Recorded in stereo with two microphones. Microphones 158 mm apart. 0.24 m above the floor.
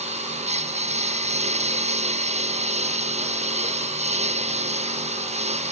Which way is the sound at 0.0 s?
45° right (ahead or behind).